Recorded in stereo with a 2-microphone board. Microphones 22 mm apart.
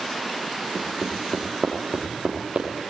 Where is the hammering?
50° right (ahead or behind), 6 m.